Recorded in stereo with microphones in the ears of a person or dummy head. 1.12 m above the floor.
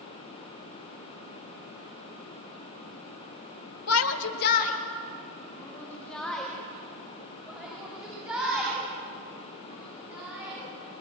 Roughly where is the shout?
Left.